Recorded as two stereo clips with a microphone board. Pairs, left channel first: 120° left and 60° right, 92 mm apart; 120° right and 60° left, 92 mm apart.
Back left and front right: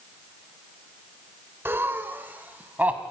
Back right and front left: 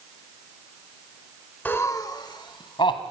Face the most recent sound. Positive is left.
turn(degrees=-135)